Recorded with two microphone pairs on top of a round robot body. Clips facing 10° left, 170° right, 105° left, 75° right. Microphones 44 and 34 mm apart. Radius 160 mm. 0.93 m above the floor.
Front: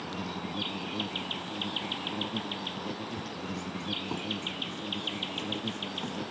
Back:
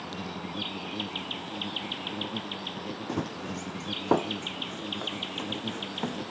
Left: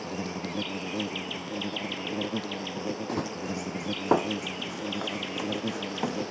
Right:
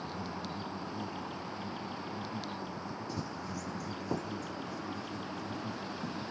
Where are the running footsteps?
150° left; by 6.2 s 125° left.